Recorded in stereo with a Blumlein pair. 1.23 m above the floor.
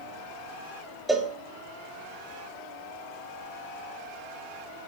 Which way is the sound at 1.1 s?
5° right.